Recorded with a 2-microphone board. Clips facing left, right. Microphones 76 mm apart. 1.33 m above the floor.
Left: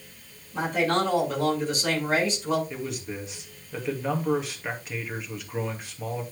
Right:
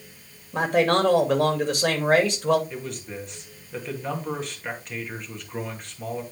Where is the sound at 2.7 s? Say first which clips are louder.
Left 1 dB; 5° left (ahead or behind), 2.5 m.